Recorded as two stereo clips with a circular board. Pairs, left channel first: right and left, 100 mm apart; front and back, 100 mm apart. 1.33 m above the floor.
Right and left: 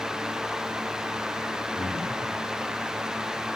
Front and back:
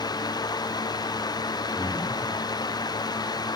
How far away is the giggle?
No giggle in this recording.